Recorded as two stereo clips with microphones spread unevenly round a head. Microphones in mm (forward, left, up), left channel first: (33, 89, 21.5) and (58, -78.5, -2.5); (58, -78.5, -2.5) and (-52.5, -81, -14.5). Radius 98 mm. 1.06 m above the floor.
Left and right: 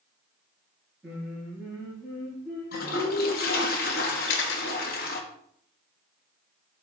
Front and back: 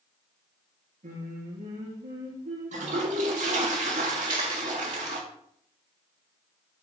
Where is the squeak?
I don't hear a squeak.